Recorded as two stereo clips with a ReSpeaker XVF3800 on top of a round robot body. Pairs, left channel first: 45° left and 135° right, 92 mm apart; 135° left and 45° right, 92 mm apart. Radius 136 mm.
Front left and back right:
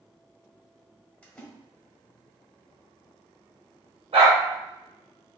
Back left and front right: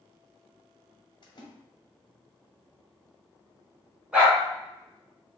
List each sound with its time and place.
1.2 s a splash: 115° left, 1.3 m
4.1 s a dog barking: 125° right, 1.9 m